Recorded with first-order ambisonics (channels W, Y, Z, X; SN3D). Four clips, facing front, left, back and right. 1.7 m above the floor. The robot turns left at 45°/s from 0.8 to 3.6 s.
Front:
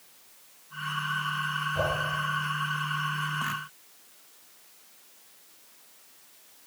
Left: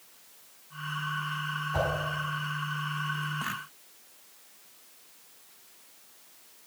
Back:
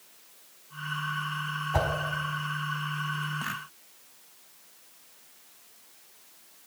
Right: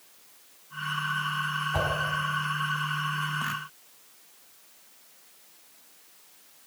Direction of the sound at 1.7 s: 175° right.